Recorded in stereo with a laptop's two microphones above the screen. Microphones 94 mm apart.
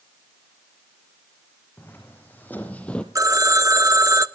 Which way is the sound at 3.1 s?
35° right (ahead or behind).